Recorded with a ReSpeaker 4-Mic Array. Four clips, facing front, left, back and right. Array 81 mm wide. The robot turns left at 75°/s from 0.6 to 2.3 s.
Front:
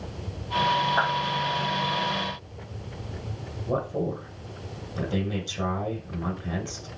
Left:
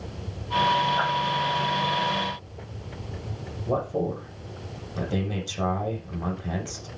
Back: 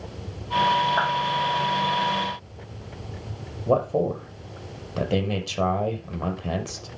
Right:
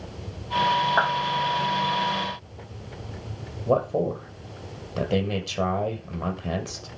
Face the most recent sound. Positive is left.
turn(degrees=-145)